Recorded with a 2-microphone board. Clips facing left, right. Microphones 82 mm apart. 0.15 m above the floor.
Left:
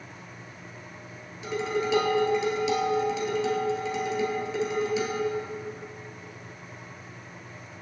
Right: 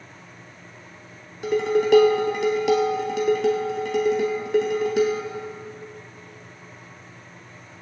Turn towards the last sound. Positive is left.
turn(degrees=-60)  # may be behind; listen again after turning